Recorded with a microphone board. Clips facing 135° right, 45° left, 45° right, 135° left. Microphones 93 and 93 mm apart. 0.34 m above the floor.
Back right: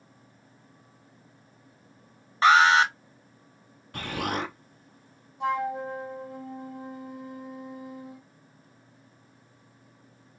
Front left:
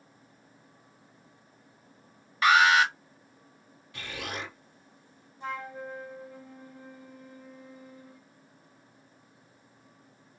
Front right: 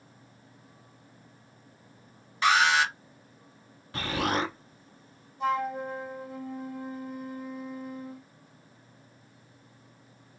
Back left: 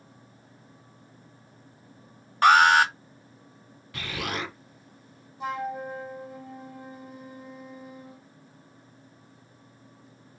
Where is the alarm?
170° left, 1.6 m.